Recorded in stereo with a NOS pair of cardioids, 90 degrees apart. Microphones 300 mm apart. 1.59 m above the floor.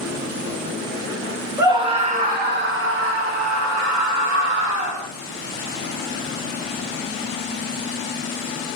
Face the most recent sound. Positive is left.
turn(degrees=-75)